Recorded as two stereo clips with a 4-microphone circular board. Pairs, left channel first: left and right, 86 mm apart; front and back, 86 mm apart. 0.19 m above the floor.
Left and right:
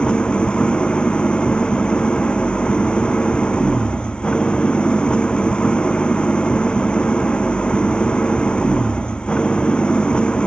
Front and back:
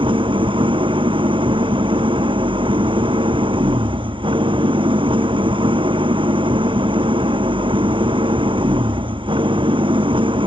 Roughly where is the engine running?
Behind.